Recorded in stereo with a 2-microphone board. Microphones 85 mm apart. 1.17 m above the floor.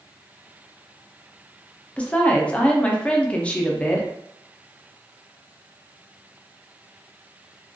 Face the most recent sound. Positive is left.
turn(degrees=15)  # may be behind; listen again after turning